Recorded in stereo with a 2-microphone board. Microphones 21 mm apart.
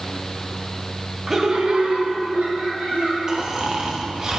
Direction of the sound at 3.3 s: 35° right (ahead or behind).